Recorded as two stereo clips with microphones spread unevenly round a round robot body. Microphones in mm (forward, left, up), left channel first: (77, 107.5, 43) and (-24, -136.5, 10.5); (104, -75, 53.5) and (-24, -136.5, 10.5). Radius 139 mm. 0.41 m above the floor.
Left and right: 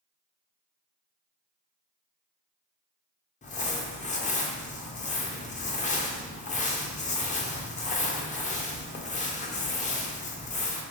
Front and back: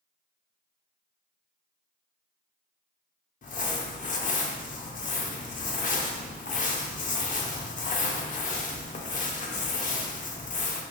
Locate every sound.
3.4 s crumpling: 10° left, 0.6 m